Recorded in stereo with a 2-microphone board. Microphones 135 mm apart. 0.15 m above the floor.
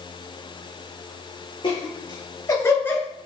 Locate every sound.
1.6 s laughter: 35° left (ahead or behind), 3.5 m; by 3.0 s 10° left (ahead or behind), 1.8 m